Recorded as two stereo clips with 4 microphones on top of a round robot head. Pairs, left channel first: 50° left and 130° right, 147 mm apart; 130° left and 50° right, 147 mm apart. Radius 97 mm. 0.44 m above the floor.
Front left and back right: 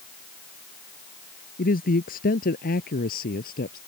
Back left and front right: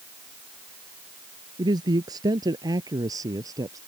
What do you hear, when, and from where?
1.6 s a man speaking: 15° left; by 3.8 s 20° left